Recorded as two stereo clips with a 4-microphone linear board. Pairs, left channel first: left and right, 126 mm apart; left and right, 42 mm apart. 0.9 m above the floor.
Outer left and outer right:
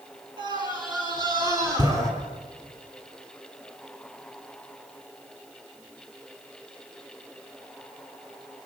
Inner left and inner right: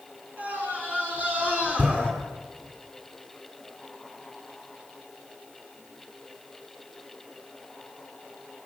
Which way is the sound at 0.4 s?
35° right (ahead or behind).